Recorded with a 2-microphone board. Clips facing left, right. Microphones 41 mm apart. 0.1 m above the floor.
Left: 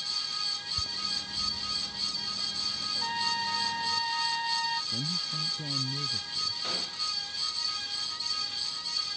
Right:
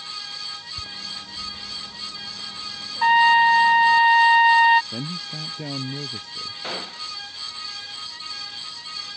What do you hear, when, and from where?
0.8 s a bird: 5° right (ahead or behind)
3.0 s a trumpet: 60° right (ahead or behind)
4.9 s a man speaking: 50° right (ahead or behind)
6.6 s a gunshot: 30° right (ahead or behind)